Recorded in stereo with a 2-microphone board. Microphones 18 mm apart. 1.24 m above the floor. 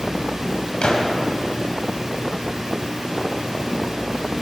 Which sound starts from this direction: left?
A gunshot, at 0.8 s.